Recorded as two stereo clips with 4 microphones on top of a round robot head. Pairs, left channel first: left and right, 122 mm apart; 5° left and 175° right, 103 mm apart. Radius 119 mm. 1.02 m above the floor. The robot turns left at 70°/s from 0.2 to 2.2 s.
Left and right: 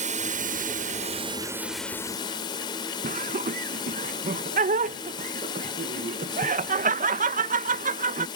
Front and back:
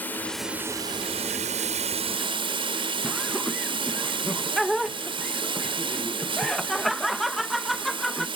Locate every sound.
0.0 s running water: 70° right; by 8.4 s 150° left
3.0 s laughter: 85° right